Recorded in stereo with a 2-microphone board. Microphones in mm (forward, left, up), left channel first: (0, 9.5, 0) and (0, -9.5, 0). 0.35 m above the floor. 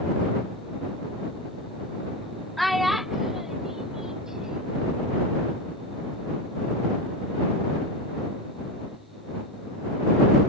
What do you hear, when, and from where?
2.6 s a child speaking: 10° left (ahead or behind); by 4.8 s 35° right (ahead or behind)